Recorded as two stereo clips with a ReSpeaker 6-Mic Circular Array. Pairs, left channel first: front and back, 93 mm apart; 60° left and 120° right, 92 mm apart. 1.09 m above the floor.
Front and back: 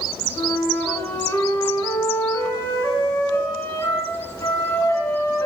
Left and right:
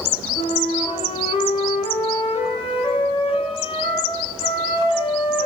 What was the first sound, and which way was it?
A flute, 65° left.